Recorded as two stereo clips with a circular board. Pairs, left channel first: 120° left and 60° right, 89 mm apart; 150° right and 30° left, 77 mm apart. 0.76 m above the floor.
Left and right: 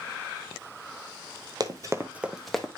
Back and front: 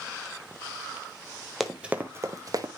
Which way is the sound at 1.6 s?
60° right.